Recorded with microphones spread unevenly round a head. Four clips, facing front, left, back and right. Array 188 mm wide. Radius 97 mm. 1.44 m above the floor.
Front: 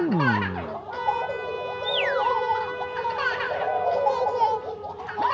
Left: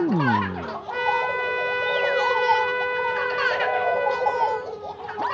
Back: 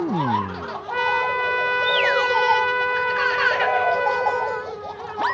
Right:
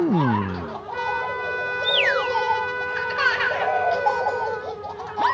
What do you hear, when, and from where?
0.9 s a trumpet: 145° left, 0.7 m